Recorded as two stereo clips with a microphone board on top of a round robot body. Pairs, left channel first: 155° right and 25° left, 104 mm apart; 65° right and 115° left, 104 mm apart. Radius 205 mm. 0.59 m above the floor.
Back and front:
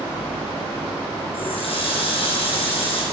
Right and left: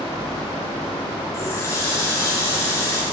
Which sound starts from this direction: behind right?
A running tap, at 1.3 s.